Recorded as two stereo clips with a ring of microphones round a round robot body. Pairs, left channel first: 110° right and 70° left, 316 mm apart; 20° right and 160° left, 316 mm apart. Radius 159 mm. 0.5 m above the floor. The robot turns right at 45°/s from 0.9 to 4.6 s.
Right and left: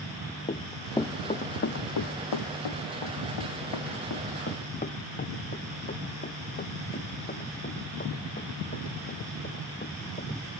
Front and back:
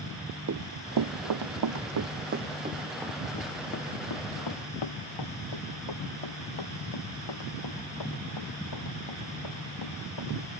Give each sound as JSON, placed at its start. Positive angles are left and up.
{"t": 0.5, "sound": "running footsteps", "azimuth_deg": -175}